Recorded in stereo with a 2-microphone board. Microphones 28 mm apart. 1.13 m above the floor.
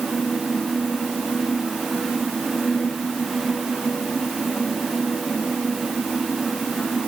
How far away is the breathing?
No breathing in this recording.